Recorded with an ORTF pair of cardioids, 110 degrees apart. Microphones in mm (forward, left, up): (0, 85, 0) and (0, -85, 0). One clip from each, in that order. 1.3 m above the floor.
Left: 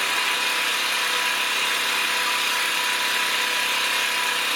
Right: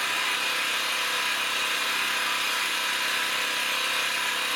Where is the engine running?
25° left, 0.8 m.